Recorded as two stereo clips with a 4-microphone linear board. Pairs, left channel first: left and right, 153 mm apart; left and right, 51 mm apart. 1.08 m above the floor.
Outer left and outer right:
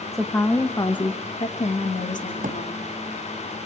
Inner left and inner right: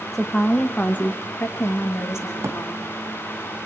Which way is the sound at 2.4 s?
65° right (ahead or behind).